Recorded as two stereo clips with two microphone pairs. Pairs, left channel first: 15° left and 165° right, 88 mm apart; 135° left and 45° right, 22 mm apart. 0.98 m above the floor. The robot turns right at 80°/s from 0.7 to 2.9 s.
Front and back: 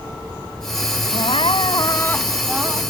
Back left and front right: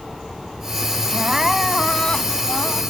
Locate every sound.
1.1 s crying: straight ahead; by 2.8 s 135° left